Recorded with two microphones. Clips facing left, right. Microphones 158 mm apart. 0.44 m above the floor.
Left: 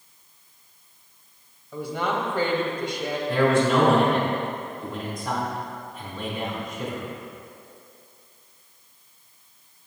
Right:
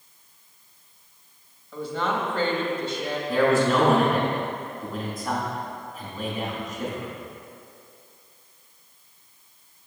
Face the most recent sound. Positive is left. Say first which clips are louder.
# even
turn(degrees=-5)  # may be behind; listen again after turning